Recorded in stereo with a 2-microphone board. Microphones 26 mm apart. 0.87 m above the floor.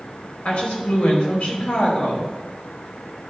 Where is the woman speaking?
65° left (ahead or behind), 5 m.